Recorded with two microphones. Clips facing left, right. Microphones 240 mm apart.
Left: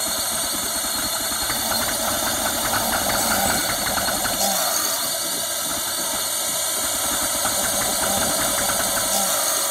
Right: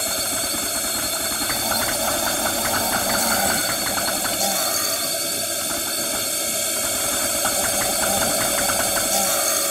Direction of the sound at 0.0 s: 25° right (ahead or behind).